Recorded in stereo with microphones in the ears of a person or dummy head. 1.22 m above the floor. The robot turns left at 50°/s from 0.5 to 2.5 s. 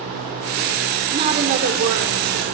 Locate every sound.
1.1 s a woman speaking: 25° right, 4.5 m; by 2.5 s 95° right, 4.5 m